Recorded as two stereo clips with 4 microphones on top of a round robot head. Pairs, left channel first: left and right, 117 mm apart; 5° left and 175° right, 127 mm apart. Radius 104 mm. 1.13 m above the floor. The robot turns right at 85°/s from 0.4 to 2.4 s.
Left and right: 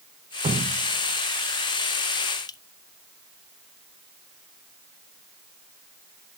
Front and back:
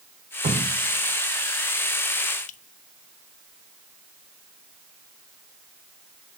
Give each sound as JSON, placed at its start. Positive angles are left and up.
{"t": 0.4, "sound": "dripping", "azimuth_deg": -135, "distance_m": 0.6}